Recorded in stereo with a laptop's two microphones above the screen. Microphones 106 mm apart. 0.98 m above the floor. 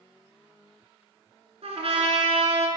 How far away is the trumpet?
About 2 m.